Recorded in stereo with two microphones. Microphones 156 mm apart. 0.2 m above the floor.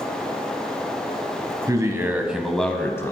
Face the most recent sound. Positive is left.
turn(degrees=20)  # may be behind; listen again after turning